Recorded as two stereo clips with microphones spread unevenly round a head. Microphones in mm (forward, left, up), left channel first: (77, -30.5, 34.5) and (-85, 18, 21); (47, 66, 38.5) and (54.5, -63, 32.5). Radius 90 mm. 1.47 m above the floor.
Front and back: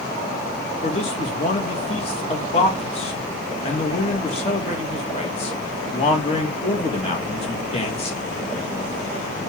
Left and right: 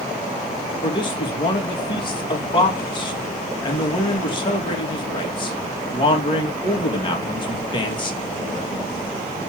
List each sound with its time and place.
0.8 s a man speaking: 40° left, 2 m